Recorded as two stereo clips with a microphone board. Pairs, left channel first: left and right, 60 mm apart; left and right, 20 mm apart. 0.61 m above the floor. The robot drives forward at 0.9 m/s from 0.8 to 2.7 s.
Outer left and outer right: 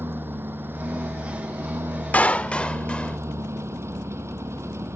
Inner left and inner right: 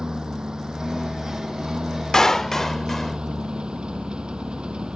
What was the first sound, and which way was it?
A lawn mower, 35° right (ahead or behind).